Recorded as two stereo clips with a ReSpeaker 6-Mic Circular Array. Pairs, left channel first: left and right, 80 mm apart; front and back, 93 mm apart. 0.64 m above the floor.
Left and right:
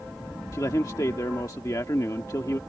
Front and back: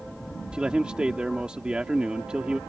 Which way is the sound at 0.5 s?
105° left.